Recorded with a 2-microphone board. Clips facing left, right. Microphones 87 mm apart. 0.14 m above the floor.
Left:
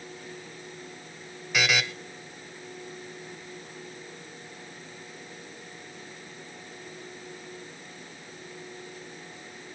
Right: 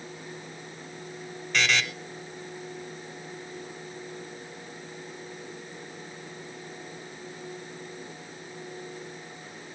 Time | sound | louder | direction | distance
1.5 | a buzzer | even | 10° left (ahead or behind) | 1.0 m